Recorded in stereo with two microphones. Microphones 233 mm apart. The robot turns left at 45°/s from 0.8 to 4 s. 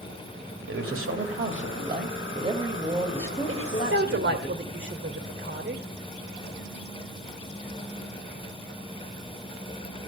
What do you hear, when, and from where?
0.7 s a man speaking: 85° right, 2 m; by 4.5 s 135° left, 2 m
3.5 s a woman speaking: 60° right (ahead or behind), 2 m; by 5.8 s 50° right (ahead or behind), 2 m